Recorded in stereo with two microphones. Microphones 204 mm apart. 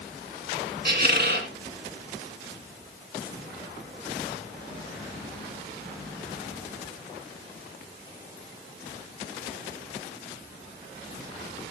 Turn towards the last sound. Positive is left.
turn(degrees=-55)  # may be behind; listen again after turning